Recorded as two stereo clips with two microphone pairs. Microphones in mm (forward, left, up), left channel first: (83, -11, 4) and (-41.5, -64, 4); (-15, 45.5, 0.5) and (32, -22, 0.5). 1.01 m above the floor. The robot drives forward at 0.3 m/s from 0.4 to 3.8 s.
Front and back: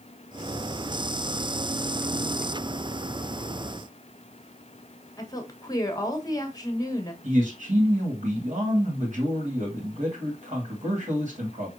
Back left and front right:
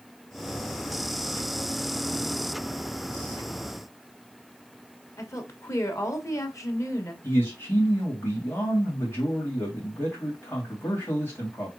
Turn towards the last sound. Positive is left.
turn(degrees=-175)